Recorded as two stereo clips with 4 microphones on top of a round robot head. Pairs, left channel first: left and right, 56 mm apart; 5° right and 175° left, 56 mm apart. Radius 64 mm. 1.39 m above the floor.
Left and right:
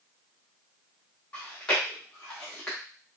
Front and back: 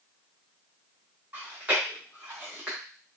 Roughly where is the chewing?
Behind left.